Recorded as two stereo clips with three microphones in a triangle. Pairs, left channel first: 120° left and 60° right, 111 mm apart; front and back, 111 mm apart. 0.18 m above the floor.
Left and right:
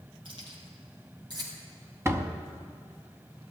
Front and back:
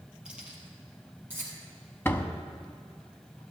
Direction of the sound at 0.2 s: 100° right.